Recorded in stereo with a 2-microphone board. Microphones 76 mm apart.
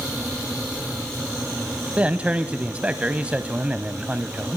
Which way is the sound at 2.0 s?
15° right (ahead or behind).